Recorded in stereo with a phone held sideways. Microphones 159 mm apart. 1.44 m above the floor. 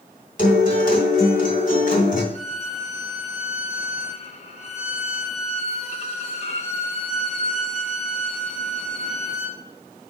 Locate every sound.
0.4 s a guitar: 55° left (ahead or behind), 2.5 m
2.3 s a violin: 45° left (ahead or behind), 1.0 m